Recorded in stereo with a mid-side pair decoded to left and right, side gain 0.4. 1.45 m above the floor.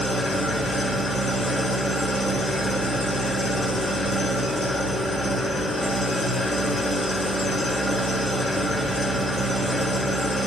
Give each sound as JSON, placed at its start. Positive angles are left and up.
{"t": 0.0, "sound": "an engine running", "azimuth_deg": 25, "distance_m": 4.0}